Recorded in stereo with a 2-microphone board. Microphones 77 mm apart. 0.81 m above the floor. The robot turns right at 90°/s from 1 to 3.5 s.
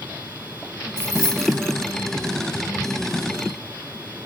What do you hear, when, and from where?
1.0 s keys jangling: 35° right (ahead or behind), 1.4 m; by 1.7 s 30° left (ahead or behind), 1.4 m